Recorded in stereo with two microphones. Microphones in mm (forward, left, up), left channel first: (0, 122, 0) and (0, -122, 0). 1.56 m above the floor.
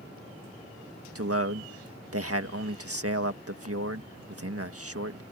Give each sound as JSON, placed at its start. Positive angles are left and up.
{"t": 1.1, "sound": "a man speaking", "side_deg": -65}